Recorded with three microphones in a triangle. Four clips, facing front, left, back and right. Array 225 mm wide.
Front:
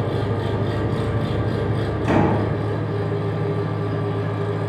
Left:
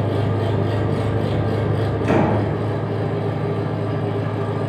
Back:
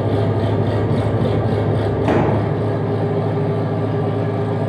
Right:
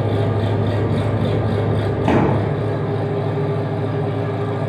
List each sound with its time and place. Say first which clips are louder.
0.0 s an engine running: right 1 dB, back 5 dB; 170° right, 1.0 m
2.0 s a door slam: right 1 dB, back 1 dB; 120° right, 2 m